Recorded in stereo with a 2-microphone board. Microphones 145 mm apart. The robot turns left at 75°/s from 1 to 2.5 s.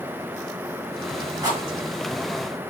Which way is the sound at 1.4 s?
30° right (ahead or behind).